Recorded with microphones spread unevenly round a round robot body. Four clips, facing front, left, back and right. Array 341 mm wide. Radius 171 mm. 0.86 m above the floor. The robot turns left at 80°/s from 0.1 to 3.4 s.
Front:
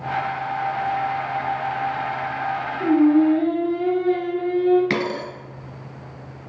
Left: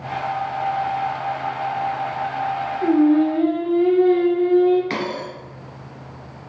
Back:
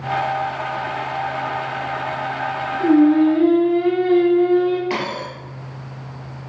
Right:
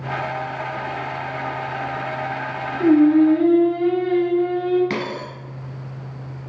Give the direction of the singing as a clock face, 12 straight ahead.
3 o'clock.